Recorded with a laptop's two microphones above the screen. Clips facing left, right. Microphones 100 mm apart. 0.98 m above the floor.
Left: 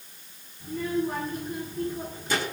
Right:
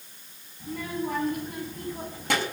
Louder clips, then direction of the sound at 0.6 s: Left 4 dB; 65° right (ahead or behind).